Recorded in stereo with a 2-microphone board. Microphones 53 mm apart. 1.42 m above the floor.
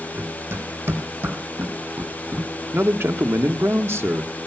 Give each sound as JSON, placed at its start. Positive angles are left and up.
{"t": 0.1, "sound": "running footsteps", "side_deg": -60, "distance_m": 4.0}
{"t": 2.7, "sound": "a man speaking", "side_deg": -55, "distance_m": 1.3}